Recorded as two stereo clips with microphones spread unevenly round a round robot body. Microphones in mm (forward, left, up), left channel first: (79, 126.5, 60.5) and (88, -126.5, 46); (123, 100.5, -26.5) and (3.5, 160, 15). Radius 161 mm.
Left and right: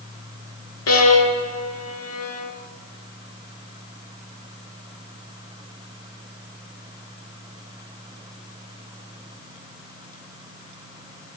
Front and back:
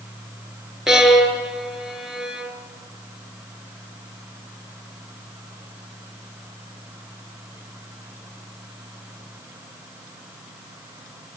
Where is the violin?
70° left, 3.5 m.